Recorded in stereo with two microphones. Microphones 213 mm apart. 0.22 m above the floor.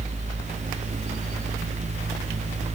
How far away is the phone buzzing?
No phone buzzing in this recording.